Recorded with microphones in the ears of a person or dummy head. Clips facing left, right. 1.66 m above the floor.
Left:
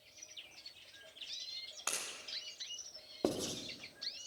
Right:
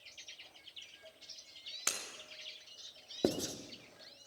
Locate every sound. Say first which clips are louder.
1.9 s breaking glass: even; 35° right (ahead or behind), 2.5 m
3.2 s writing: right 2 dB; 20° right (ahead or behind), 1.1 m